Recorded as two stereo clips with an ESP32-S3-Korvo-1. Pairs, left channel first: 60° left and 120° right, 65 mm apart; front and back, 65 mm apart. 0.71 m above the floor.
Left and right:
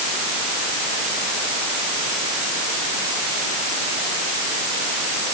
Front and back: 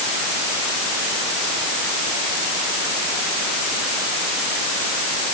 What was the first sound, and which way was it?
Only background noise.